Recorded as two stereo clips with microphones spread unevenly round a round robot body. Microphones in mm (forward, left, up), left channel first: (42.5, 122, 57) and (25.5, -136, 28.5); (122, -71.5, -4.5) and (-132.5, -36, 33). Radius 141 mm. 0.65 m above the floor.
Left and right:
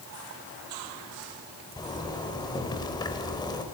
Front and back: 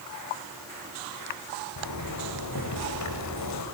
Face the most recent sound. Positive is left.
turn(degrees=10)